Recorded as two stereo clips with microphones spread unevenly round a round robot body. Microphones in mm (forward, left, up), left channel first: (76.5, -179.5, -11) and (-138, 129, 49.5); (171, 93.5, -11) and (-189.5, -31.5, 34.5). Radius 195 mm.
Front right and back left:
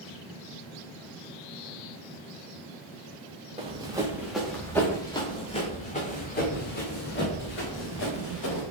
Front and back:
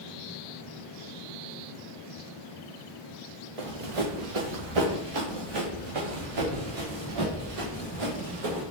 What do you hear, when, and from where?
3.6 s running footsteps: 160° right, 2 m; by 8.6 s 110° right, 5.5 m